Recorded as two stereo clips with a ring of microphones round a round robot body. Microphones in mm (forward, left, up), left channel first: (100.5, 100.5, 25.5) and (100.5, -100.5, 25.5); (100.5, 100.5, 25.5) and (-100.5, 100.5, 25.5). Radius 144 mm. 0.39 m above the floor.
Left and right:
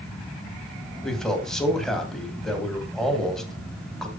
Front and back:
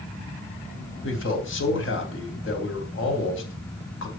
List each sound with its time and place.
1.0 s a man speaking: straight ahead, 3 m